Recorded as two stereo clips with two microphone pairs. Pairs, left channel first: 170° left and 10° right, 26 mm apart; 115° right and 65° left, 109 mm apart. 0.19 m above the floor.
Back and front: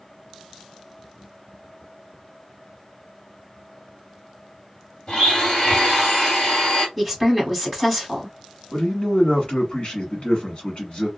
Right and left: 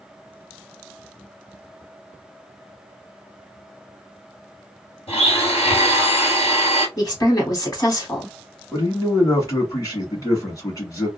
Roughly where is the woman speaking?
Right.